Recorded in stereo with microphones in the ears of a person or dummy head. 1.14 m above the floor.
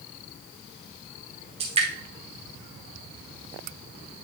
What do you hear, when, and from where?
1.6 s dripping: 25° right (ahead or behind), 1.5 m